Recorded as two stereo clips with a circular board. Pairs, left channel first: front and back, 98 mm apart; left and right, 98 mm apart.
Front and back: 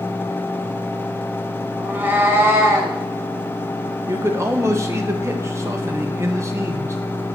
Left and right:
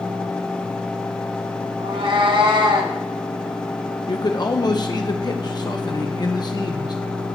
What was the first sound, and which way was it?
A cat meowing, 110° right.